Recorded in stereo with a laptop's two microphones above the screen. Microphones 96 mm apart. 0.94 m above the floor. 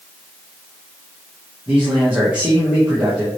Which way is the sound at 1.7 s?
10° right (ahead or behind).